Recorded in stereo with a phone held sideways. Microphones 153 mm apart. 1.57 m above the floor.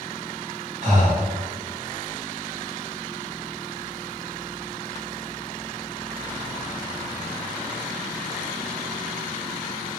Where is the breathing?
55° right (ahead or behind), 1.0 m.